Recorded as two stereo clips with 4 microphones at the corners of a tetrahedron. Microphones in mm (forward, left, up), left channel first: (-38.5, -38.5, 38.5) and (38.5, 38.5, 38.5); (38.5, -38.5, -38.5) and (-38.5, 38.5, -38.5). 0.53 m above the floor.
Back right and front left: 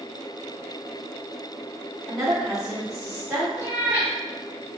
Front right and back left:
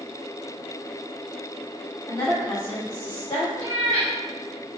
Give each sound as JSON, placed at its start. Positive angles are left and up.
{"t": 2.1, "sound": "a woman speaking", "azimuth_deg": -40, "distance_m": 0.9}
{"t": 3.6, "sound": "a cat meowing", "azimuth_deg": 110, "distance_m": 1.2}